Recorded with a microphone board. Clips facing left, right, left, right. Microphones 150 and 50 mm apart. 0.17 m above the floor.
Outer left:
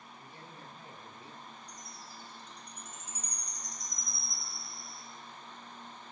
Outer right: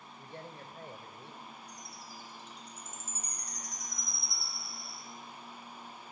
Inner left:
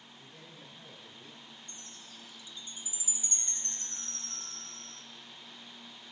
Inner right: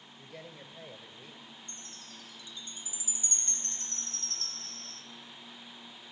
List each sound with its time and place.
0.2 s a man speaking: 65° right (ahead or behind), 2.5 m
1.7 s a chime: 15° left (ahead or behind), 1.5 m